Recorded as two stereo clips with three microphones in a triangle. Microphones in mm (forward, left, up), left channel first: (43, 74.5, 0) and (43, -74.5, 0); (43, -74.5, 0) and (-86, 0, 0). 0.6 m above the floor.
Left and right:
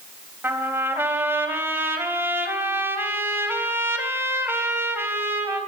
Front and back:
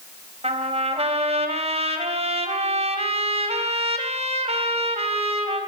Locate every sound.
0.4 s a trumpet: 165° right, 3.5 m